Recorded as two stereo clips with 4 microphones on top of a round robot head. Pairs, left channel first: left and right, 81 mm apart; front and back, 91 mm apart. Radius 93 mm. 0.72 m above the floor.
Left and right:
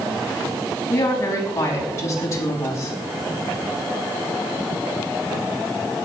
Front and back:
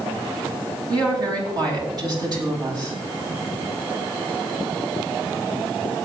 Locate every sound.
0.9 s a woman speaking: 140° left, 6.5 m